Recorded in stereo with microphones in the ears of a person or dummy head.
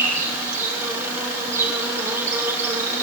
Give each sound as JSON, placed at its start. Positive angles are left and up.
{"t": 0.0, "sound": "an insect", "side_deg": -15, "distance_m": 7.5}